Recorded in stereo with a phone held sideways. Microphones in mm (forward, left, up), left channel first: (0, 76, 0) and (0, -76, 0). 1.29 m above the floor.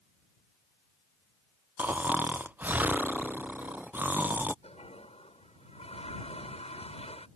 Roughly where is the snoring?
Centre.